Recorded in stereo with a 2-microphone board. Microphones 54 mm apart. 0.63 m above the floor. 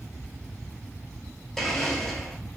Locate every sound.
1.6 s a blender: 5° left (ahead or behind), 0.9 m